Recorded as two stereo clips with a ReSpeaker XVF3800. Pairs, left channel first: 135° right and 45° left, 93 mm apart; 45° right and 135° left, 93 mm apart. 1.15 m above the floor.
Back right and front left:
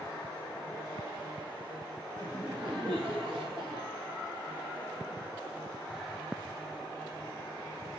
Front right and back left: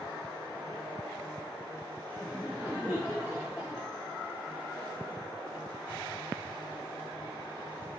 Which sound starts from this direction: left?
Laughter, at 2.2 s.